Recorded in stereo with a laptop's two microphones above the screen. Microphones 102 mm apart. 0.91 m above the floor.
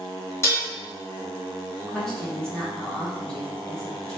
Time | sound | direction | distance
0.4 | dishes clattering | 25° left (ahead or behind) | 0.8 m
1.8 | a woman speaking | 5° left (ahead or behind) | 0.8 m